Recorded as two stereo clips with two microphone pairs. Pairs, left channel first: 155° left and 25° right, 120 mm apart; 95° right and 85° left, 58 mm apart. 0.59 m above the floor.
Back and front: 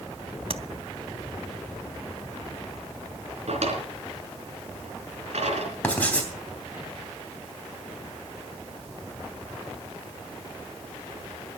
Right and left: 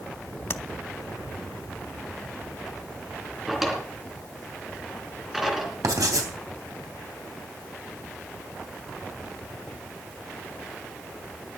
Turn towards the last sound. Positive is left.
turn(degrees=80)